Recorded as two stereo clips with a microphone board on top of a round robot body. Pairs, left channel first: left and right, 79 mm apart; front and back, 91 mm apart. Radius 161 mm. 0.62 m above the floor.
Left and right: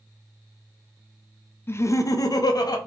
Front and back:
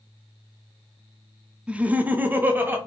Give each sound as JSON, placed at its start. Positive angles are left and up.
{"t": 1.7, "sound": "laughter", "azimuth_deg": 110, "distance_m": 0.6}